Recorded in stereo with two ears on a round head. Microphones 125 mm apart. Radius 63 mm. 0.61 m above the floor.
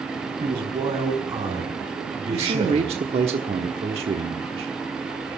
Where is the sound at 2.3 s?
45° right (ahead or behind), 1.2 m.